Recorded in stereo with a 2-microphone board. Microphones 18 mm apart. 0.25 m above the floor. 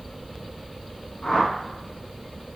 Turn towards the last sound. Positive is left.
turn(degrees=40)  # may be behind; listen again after turning